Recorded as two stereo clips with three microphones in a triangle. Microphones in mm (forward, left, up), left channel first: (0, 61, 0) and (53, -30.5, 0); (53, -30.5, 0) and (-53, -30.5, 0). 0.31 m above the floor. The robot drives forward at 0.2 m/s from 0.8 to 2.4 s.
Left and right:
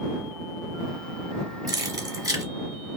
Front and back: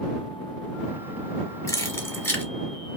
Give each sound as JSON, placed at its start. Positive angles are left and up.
{"t": 1.7, "sound": "keys jangling", "azimuth_deg": -40, "distance_m": 0.8}